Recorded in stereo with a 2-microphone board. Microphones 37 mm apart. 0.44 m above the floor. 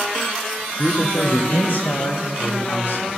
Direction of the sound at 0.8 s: 40° left (ahead or behind).